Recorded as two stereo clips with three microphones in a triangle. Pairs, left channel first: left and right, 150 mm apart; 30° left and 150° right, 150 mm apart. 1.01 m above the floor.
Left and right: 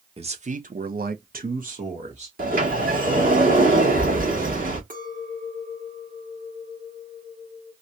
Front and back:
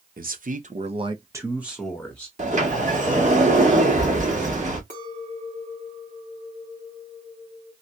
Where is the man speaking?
140° right, 0.8 m; by 2.3 s 50° right, 1.2 m.